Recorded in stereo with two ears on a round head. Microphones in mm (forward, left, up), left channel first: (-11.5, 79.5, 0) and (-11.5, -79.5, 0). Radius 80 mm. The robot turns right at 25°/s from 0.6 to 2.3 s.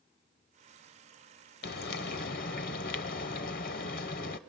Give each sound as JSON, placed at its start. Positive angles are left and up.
{"t": 1.6, "sound": "frying", "side_deg": 55, "distance_m": 0.8}